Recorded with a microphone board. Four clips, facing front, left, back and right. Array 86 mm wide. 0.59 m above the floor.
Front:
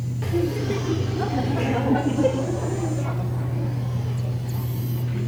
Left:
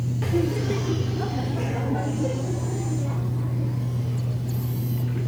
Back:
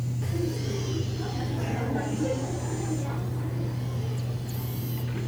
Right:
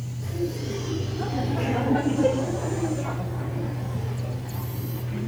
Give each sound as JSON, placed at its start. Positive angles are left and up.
{"t": 0.2, "sound": "laughter", "azimuth_deg": 60, "distance_m": 1.8}